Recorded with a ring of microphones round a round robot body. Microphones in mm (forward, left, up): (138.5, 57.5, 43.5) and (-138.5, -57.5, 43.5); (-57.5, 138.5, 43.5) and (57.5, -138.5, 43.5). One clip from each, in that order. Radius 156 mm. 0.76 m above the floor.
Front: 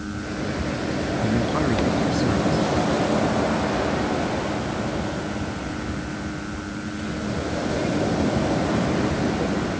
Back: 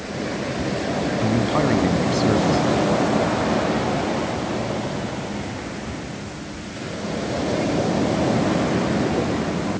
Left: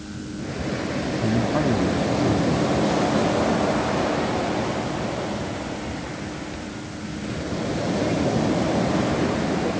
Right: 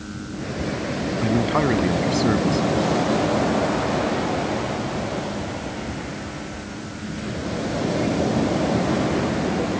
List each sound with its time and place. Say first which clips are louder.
1.2 s a man speaking: back 3 dB, right 3 dB; 75° right